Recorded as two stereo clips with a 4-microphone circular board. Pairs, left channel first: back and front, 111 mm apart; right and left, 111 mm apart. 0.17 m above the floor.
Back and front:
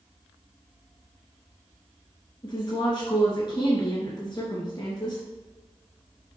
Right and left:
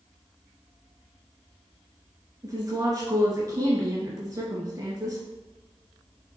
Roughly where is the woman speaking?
Behind left.